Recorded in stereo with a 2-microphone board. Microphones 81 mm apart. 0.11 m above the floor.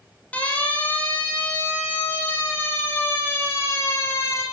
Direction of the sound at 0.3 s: 15° left (ahead or behind).